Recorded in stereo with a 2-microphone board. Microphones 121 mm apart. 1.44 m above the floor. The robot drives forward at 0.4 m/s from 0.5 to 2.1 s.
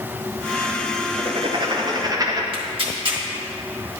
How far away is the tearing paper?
About 1.5 m.